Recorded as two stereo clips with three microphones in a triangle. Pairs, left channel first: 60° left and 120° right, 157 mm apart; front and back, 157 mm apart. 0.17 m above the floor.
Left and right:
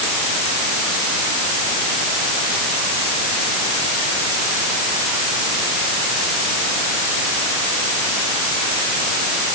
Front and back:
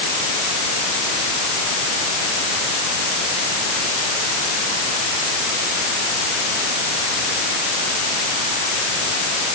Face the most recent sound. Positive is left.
No sound to turn to.